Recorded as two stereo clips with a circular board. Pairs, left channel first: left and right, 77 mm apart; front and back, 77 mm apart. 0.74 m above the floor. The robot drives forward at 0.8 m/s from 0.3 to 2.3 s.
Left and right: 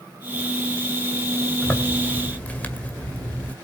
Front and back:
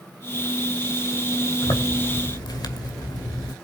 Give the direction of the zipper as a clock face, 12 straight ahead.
11 o'clock.